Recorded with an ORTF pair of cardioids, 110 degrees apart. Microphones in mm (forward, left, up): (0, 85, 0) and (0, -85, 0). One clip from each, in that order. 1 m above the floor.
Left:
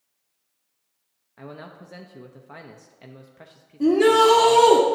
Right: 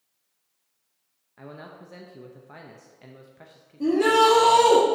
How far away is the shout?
About 1.2 m.